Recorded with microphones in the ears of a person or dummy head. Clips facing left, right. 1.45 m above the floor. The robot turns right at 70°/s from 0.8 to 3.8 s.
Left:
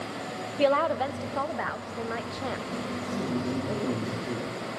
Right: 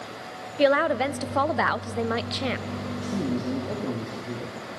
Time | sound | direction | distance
0.6 | a woman speaking | 160° right | 0.5 m
3.0 | a man speaking | 50° right | 3 m